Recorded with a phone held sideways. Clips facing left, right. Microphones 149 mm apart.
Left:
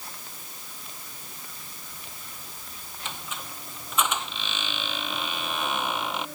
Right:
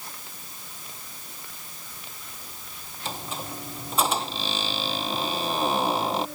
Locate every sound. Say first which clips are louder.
3.0 s a squeak: right 5 dB; 35° right (ahead or behind)